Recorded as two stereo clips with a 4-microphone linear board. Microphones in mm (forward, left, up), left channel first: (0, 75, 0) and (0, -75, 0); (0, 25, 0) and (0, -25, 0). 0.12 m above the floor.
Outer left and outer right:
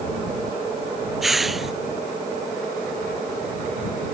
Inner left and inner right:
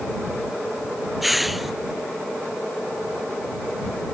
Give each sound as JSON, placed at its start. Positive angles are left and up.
{"t": 1.2, "sound": "a hiss", "side_deg": 0}